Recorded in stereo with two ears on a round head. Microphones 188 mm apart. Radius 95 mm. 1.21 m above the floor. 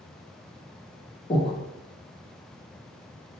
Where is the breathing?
25° left (ahead or behind), 0.6 m.